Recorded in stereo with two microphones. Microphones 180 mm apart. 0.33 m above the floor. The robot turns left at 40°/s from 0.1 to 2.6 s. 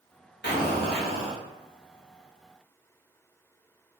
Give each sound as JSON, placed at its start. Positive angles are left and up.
{"t": 0.4, "sound": "an explosion", "azimuth_deg": 85, "distance_m": 1.0}